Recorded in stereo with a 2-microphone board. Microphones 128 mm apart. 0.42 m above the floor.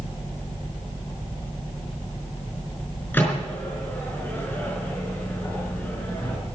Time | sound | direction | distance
3.1 | a microwave | 15° left (ahead or behind) | 5 m